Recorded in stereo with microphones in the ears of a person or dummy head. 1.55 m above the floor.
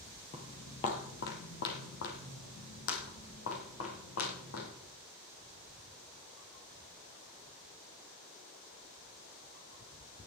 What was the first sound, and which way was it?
Footsteps, 20° left (ahead or behind).